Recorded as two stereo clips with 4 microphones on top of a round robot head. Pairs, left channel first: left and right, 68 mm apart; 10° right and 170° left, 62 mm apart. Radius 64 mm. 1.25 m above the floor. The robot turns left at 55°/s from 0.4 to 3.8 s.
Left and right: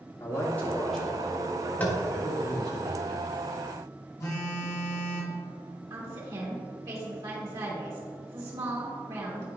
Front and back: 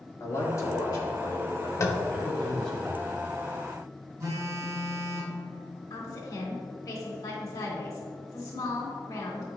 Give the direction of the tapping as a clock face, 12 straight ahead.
11 o'clock.